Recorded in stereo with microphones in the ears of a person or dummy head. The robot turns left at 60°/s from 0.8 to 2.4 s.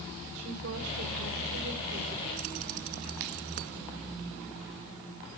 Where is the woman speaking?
80° right, 5.5 m; by 2.1 s 160° right, 5.5 m.